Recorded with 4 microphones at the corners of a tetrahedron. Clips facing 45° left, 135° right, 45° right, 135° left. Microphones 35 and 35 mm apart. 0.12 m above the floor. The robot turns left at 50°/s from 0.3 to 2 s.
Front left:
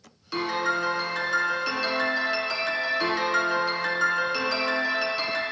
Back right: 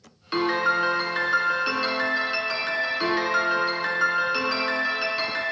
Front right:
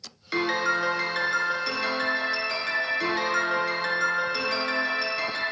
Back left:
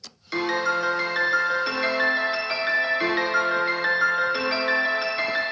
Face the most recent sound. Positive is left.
turn(degrees=155)